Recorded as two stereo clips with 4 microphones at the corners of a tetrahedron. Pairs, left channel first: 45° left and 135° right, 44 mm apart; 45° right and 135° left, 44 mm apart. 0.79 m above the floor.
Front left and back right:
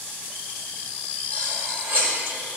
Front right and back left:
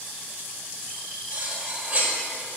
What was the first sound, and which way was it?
Cutlery clinking, 170° right.